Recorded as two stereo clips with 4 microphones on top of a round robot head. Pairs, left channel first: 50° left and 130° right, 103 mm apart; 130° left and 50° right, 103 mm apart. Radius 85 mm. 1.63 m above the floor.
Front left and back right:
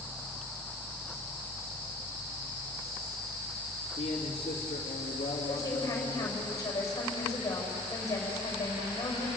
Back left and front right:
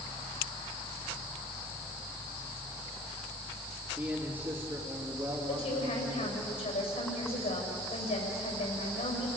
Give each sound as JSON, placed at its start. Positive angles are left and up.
{"t": 4.0, "sound": "a man speaking", "azimuth_deg": 15, "distance_m": 3.0}
{"t": 5.5, "sound": "a woman speaking", "azimuth_deg": 110, "distance_m": 7.5}